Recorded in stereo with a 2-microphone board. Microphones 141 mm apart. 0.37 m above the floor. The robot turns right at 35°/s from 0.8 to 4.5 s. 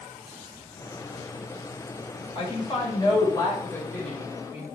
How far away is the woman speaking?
About 1.7 m.